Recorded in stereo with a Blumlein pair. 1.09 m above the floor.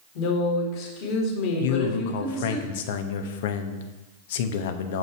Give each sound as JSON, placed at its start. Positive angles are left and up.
{"t": 0.1, "sound": "a woman speaking", "azimuth_deg": 45, "distance_m": 3.0}
{"t": 1.6, "sound": "a man speaking", "azimuth_deg": 55, "distance_m": 1.0}